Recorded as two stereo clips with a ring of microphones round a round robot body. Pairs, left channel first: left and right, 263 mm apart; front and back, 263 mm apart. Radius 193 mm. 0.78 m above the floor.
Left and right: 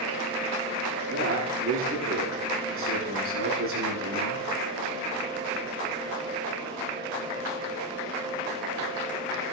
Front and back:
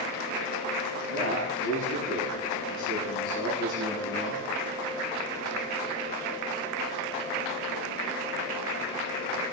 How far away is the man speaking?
About 9 m.